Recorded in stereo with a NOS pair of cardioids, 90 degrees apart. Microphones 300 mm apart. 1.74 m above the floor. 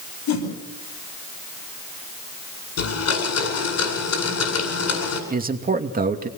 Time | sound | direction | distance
0.3 | a whoosh | 65° left | 9 m
2.8 | a blender | 60° left | 8.5 m
5.3 | a man speaking | 30° right | 2.5 m